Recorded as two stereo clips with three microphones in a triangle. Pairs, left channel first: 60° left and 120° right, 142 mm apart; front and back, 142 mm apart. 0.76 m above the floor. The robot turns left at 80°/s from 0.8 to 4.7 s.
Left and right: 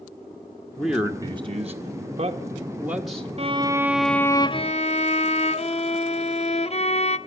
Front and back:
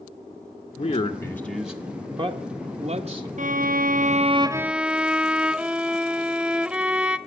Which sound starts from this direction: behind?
A violin, at 3.4 s.